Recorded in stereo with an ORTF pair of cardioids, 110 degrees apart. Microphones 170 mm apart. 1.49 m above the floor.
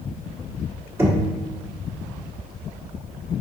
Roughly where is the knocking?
Ahead.